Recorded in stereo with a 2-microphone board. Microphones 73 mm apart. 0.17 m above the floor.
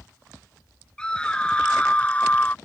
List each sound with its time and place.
1.0 s a scream: 15° left (ahead or behind); by 2.5 s 25° left (ahead or behind)